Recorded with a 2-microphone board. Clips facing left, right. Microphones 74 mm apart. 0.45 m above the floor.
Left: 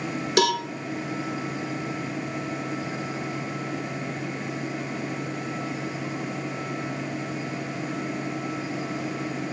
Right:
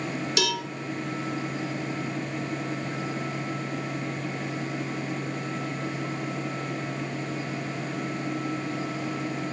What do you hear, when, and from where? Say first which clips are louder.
0.4 s a cowbell: left 8 dB; 45° left (ahead or behind), 0.5 m